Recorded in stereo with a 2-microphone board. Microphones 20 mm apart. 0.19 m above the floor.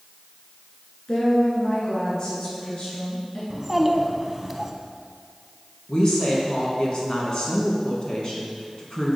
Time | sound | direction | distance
1.1 | a woman speaking | 40° left (ahead or behind) | 2 m
3.5 | a child speaking | 15° right (ahead or behind) | 0.7 m
5.9 | a woman speaking | 40° left (ahead or behind) | 1.9 m